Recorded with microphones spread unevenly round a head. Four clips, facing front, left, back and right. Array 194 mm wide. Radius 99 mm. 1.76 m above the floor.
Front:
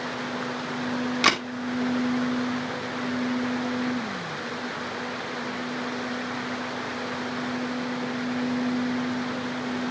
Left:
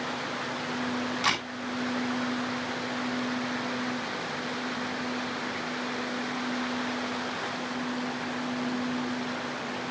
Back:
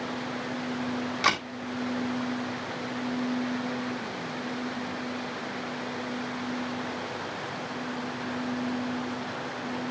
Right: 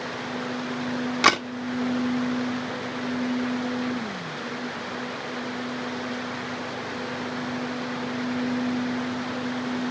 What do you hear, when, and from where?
1.2 s a camera shutter: 65° right, 2 m